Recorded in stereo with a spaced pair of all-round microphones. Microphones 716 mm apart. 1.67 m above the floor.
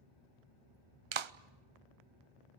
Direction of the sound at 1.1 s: 45° right (ahead or behind).